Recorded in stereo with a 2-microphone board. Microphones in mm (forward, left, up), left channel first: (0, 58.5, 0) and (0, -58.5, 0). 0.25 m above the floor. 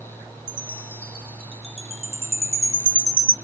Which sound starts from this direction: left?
A chime, at 0.5 s.